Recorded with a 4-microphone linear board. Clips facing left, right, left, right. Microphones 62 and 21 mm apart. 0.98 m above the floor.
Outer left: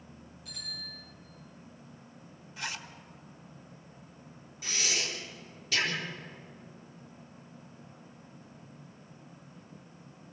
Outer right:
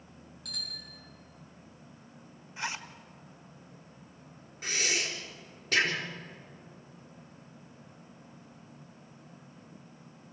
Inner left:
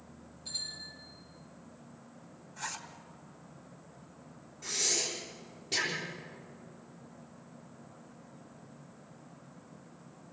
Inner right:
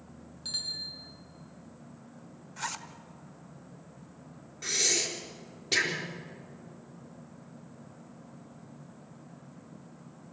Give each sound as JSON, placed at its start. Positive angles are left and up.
{"t": 0.5, "sound": "a bicycle bell", "side_deg": -75, "distance_m": 8.0}
{"t": 2.6, "sound": "a zipper", "side_deg": -25, "distance_m": 1.4}
{"t": 4.6, "sound": "breathing", "side_deg": -45, "distance_m": 4.0}